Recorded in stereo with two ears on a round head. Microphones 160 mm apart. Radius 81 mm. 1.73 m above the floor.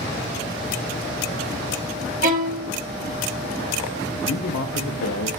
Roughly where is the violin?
Right.